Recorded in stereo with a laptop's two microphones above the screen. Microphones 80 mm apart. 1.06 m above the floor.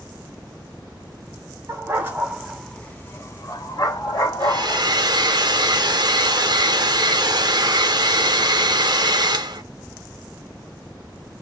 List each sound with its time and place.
1.7 s a dog barking: 35° right (ahead or behind), 1.0 m; by 4.8 s 65° left (ahead or behind), 1.8 m
4.4 s a hair dryer: 60° right (ahead or behind), 0.7 m